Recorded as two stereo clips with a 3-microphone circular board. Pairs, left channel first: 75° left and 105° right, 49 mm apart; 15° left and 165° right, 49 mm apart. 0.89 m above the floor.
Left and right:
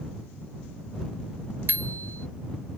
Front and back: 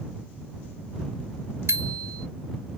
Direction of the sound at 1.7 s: 150° right.